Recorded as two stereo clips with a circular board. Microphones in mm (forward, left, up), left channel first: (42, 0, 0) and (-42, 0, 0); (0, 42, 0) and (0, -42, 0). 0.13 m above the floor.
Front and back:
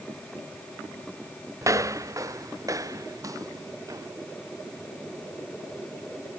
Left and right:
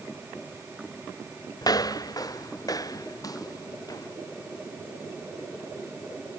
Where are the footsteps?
130° left.